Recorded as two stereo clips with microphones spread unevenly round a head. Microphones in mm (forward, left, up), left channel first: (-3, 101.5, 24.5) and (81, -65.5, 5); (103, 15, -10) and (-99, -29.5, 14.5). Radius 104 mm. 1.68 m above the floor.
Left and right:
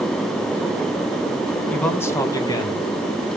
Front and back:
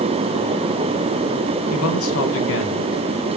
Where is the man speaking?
35° left, 2.0 m; by 2.9 s 50° left, 3 m.